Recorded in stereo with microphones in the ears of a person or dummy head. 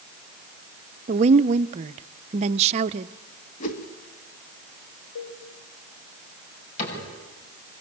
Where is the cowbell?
65° left (ahead or behind), 6 m.